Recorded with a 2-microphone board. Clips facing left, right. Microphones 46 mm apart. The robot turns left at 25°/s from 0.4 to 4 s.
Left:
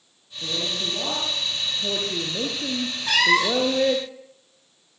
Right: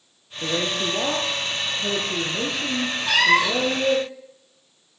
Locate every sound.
0.4 s a woman speaking: 140° right, 6.5 m; by 4.1 s 130° left, 6.5 m
3.1 s a cat meowing: centre (ahead or behind), 0.5 m; by 3.8 s 10° right (ahead or behind), 0.5 m